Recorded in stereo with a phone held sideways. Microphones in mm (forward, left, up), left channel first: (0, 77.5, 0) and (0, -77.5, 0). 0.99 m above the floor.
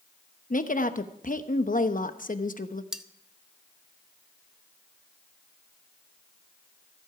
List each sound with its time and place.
0.5 s a woman speaking: 60° left (ahead or behind), 0.9 m
2.9 s cutlery clinking: 5° right (ahead or behind), 0.6 m